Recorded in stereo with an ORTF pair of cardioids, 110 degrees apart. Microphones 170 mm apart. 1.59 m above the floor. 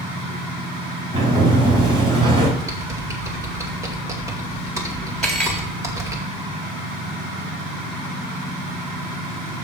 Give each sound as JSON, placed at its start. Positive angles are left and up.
{"t": 1.1, "sound": "a sliding door", "azimuth_deg": -30, "distance_m": 4.5}
{"t": 2.6, "sound": "typing on a keyboard", "azimuth_deg": -20, "distance_m": 2.5}
{"t": 5.2, "sound": "cutlery clinking", "azimuth_deg": 0, "distance_m": 3.5}